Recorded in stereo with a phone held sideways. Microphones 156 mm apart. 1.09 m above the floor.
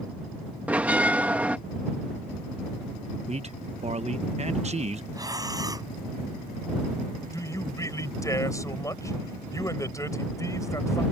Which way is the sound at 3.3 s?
45° right (ahead or behind).